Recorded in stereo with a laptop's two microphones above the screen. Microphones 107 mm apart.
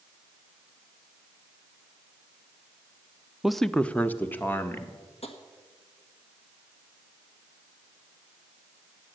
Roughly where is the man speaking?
Centre.